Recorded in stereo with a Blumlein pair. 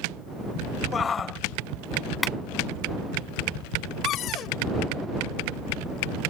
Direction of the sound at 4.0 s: 30° left.